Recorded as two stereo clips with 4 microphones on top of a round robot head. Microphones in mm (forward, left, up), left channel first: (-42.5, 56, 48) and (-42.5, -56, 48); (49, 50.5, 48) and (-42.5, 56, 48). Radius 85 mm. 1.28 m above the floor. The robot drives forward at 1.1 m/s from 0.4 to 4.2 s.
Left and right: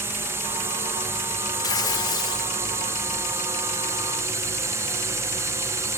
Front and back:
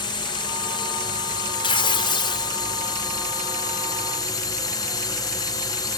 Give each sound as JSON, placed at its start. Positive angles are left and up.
{"t": 0.0, "sound": "a drone", "azimuth_deg": -25}
{"t": 1.6, "sound": "tearing paper", "azimuth_deg": 25}